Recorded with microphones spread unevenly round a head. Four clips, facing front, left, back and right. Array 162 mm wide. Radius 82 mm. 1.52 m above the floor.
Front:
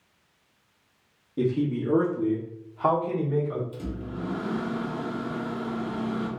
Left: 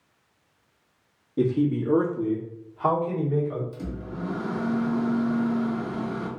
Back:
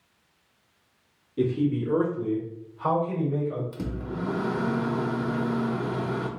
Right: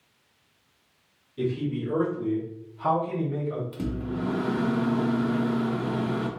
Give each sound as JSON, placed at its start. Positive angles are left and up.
{"t": 1.4, "sound": "a man speaking", "azimuth_deg": 70, "distance_m": 1.1}
{"t": 3.7, "sound": "a microwave", "azimuth_deg": -140, "distance_m": 0.8}